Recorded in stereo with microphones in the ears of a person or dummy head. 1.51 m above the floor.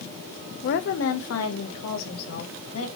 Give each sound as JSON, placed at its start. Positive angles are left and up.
{"t": 0.6, "sound": "a woman speaking", "side_deg": 55, "distance_m": 1.0}